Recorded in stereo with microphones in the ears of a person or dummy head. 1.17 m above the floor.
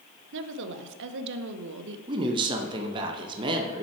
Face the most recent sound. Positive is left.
turn(degrees=-15)  # may be behind; listen again after turning